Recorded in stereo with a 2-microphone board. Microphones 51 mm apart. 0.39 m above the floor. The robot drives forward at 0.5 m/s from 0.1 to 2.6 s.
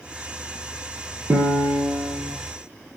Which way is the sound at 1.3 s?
75° right (ahead or behind).